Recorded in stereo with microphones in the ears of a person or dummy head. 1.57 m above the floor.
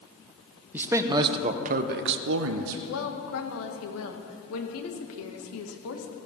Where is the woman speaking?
85° left, 1.7 m.